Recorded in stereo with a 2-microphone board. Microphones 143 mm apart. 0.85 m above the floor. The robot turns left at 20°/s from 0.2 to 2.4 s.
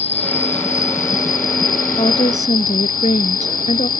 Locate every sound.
0.0 s an insect: 130° left; by 4.0 s 90° left
2.0 s a woman speaking: 40° left (ahead or behind); by 3.9 s 50° left (ahead or behind)